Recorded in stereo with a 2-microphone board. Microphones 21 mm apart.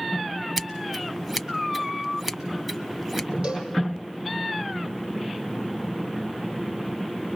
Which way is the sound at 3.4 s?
85° right.